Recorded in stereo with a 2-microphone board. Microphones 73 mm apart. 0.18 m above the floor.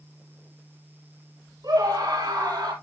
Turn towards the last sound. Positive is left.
turn(degrees=-75)  # may be behind; listen again after turning